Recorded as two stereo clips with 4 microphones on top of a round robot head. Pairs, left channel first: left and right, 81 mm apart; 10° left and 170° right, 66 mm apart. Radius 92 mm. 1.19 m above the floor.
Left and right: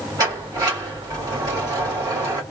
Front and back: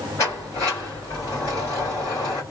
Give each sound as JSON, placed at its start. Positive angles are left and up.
{"t": 0.2, "sound": "a sliding door", "azimuth_deg": -45, "distance_m": 1.9}